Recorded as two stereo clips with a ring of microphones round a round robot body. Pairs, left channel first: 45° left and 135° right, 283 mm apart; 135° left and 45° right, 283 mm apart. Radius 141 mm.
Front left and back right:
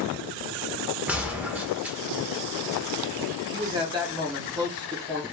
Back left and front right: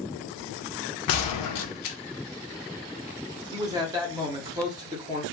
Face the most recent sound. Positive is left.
turn(degrees=-95)